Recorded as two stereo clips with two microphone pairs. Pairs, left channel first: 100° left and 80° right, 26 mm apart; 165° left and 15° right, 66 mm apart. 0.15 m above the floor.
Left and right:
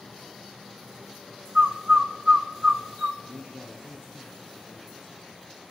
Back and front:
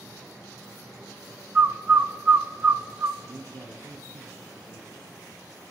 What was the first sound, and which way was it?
A bird, 55° right.